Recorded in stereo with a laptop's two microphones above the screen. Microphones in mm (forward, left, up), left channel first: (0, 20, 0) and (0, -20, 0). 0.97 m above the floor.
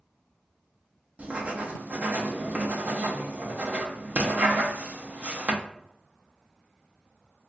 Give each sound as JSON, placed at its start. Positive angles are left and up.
{"t": 1.2, "sound": "writing", "side_deg": -40, "distance_m": 0.5}